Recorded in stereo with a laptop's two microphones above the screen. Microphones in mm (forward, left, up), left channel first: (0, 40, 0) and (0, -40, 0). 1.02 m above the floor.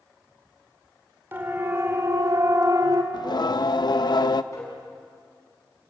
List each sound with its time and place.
1.3 s a siren: 25° right (ahead or behind), 4 m; by 3.0 s 55° right (ahead or behind), 2.5 m
3.1 s singing: 60° left (ahead or behind), 0.8 m
4.5 s tapping: 40° left (ahead or behind), 6.5 m